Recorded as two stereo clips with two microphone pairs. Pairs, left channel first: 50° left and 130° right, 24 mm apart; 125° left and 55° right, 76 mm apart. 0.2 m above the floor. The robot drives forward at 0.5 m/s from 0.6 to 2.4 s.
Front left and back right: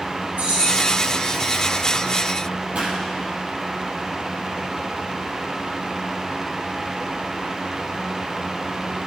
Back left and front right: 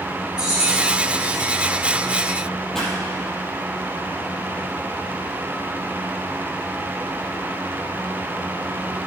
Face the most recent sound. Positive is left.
turn(degrees=-150)